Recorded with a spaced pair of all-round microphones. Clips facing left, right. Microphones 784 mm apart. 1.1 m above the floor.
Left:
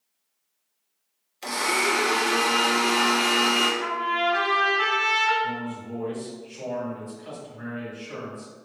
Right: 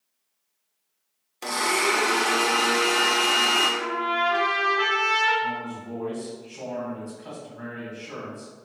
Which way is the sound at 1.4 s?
70° right (ahead or behind).